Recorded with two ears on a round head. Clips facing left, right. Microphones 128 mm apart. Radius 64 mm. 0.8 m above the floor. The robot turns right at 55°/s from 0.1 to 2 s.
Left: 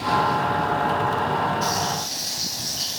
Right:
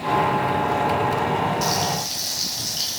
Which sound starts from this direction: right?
Frying, at 1.6 s.